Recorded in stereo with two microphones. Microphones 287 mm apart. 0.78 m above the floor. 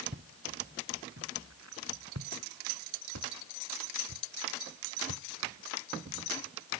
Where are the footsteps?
40° right (ahead or behind); by 6.8 s 85° right.